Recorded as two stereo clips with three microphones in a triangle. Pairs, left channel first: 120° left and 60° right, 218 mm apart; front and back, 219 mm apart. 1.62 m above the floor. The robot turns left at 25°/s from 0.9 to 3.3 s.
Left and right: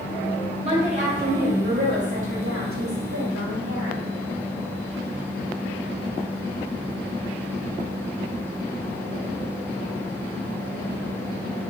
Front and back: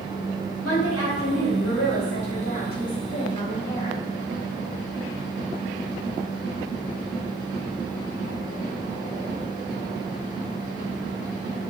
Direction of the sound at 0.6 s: Straight ahead.